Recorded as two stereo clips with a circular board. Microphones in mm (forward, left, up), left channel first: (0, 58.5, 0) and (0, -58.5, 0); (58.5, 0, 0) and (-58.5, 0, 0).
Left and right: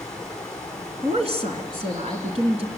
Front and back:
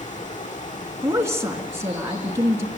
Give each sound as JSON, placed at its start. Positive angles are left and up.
{"t": 0.0, "sound": "running water", "azimuth_deg": 5, "distance_m": 4.0}
{"t": 1.0, "sound": "a woman speaking", "azimuth_deg": -115, "distance_m": 3.0}